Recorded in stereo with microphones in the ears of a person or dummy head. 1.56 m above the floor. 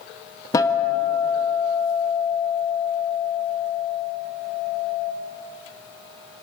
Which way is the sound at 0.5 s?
25° left (ahead or behind).